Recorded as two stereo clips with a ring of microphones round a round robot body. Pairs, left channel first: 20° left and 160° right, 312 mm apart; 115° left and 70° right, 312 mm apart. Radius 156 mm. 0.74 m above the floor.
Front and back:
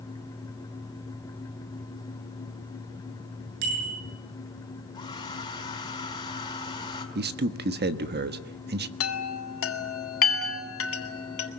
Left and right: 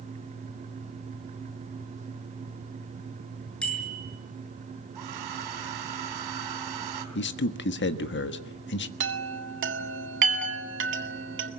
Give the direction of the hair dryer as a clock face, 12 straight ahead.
2 o'clock.